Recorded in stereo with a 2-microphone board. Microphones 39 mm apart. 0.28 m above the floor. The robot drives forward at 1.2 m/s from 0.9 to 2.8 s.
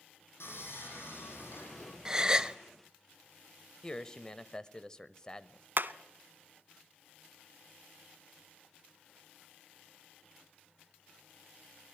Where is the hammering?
55° right (ahead or behind), 0.9 m.